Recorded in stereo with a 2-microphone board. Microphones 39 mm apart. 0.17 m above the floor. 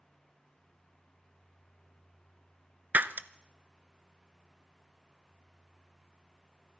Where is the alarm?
No alarm in this recording.